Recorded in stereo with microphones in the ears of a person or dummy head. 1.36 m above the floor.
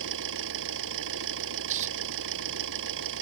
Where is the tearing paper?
35° right (ahead or behind).